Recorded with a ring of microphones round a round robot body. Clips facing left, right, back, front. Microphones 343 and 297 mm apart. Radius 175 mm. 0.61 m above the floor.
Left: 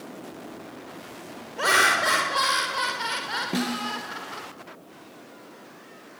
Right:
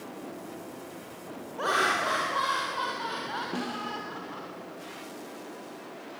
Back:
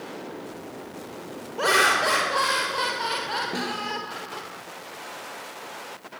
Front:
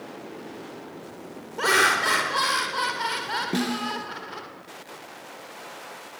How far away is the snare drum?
About 1.5 m.